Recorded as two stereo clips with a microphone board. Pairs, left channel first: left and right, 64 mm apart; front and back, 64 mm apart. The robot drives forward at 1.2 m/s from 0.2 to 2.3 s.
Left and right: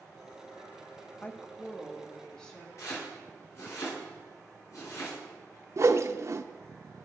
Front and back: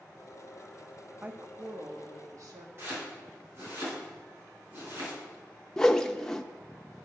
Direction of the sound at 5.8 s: 80° right.